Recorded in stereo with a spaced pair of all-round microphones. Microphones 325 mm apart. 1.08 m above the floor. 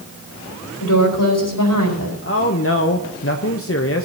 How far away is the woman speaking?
About 4 m.